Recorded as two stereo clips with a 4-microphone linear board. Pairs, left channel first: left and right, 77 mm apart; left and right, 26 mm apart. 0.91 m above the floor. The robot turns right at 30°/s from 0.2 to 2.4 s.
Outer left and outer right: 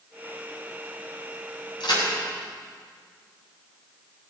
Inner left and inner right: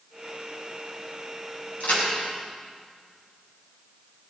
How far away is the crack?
About 6 m.